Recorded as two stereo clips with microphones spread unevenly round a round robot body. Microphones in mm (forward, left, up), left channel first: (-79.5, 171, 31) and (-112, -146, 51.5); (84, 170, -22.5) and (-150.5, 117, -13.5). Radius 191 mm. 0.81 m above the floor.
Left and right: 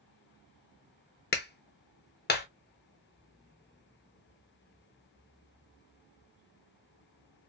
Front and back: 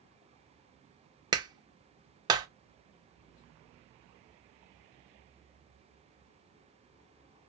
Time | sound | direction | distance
1.3 | a clap | 125° left | 0.7 m